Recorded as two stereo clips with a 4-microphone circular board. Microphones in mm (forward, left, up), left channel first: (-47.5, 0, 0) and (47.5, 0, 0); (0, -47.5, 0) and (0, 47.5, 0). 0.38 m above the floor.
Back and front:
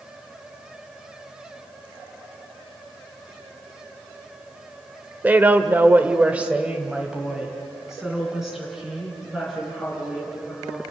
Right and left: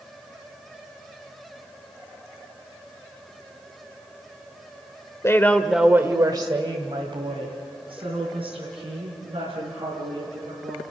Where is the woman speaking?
60° right, 1.1 m; by 10.8 s 90° left, 6.5 m.